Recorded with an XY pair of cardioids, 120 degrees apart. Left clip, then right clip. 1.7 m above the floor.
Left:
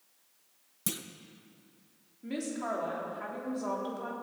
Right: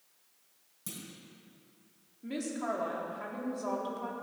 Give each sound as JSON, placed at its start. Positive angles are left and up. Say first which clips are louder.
{"t": 0.9, "sound": "a clunk", "louder": "left 8 dB", "azimuth_deg": 55, "distance_m": 1.3}
{"t": 2.2, "sound": "a woman speaking", "louder": "even", "azimuth_deg": 0, "distance_m": 4.0}